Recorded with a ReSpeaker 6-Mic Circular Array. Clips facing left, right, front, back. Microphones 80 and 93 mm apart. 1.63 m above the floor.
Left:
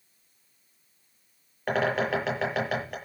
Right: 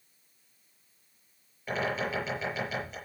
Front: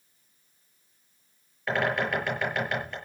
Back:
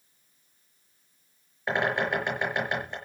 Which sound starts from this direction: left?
A bird, at 1.7 s.